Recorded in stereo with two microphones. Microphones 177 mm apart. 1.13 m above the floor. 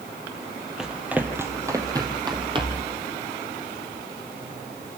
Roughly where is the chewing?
No chewing in this recording.